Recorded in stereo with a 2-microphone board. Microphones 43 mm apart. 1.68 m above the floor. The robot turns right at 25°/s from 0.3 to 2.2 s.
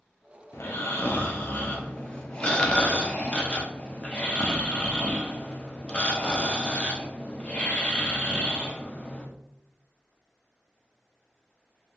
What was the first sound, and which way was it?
Snoring, 115° left.